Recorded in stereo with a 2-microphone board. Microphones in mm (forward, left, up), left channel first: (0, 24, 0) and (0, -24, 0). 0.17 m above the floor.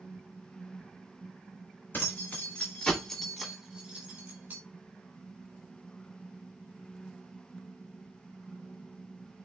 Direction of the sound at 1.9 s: 40° left (ahead or behind).